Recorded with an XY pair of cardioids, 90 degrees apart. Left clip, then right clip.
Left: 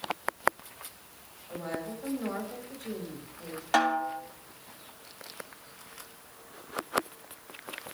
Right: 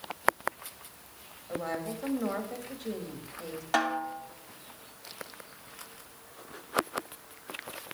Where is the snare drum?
15° left, 3 m.